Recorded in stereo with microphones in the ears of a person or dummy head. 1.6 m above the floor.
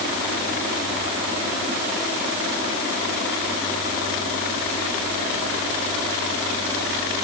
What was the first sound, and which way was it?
Only background noise.